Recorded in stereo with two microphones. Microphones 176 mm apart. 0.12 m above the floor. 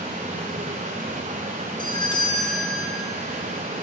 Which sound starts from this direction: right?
Running water, at 0.0 s.